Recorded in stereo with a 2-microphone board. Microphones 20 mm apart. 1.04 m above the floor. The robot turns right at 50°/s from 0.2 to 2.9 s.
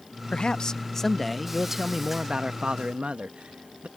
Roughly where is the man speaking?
Behind left.